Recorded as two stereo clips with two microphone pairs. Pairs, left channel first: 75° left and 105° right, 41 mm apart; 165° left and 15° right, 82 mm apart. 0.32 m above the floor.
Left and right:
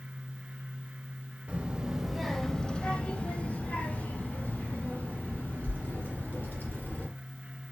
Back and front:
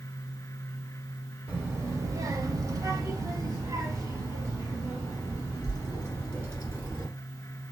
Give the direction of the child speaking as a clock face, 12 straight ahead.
2 o'clock.